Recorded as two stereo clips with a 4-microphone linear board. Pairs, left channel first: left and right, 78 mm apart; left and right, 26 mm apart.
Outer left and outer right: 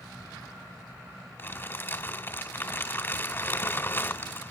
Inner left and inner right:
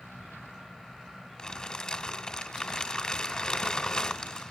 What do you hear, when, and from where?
1.4 s crumpling: 30° left (ahead or behind), 1.7 m